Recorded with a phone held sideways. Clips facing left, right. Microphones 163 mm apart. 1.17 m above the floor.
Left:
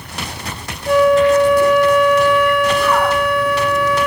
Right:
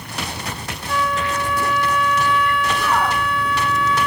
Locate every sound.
0.9 s a flute: 75° left (ahead or behind)